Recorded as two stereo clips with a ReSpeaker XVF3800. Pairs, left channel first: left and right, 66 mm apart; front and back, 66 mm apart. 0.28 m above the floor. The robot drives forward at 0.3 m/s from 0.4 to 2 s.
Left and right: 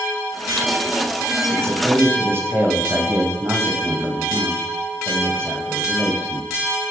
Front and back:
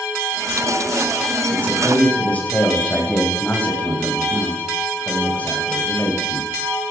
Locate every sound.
1.5 s a man speaking: 50° right, 2 m; by 6.5 s 55° right, 2 m